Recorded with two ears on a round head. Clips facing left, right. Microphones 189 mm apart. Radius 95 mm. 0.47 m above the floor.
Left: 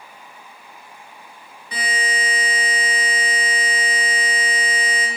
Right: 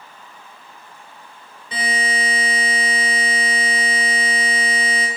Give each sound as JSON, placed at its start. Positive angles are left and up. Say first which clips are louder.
{"t": 1.7, "sound": "a buzzer", "louder": "right 2 dB", "side_deg": -25, "distance_m": 1.3}